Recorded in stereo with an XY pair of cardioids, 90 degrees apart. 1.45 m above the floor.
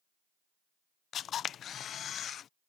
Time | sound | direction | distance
1.1 | a camera shutter | 70° left | ?